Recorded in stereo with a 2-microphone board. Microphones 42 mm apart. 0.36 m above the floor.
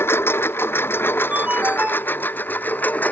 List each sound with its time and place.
0.0 s a lawn mower: 80° left; by 3.1 s 50° left (ahead or behind)
1.3 s a ringtone: 40° right (ahead or behind)